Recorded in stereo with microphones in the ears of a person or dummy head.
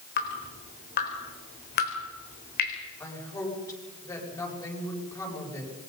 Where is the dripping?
50° left (ahead or behind), 3.5 m.